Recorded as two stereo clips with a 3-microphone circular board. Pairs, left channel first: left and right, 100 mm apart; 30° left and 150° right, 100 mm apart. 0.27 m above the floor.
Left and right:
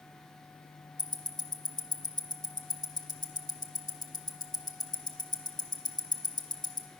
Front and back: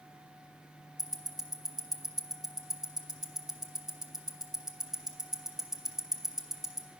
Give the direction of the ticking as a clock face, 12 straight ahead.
8 o'clock.